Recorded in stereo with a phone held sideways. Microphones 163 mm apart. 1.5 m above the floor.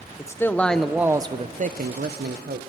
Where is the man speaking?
20° left (ahead or behind), 1.2 m; by 2.6 s 85° right, 1.1 m.